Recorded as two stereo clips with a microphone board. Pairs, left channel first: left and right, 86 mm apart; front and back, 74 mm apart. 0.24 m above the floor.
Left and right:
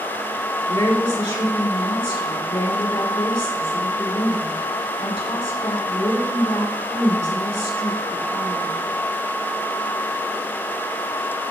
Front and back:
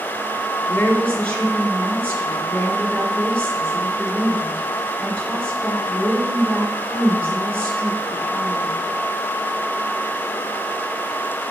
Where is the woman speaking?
70° left, 3 m.